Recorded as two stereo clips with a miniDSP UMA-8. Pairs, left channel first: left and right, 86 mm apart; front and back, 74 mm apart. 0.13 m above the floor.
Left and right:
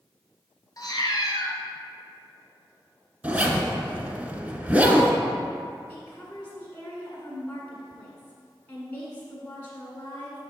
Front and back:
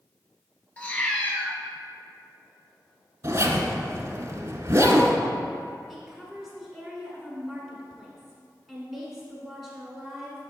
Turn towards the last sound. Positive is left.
turn(degrees=85)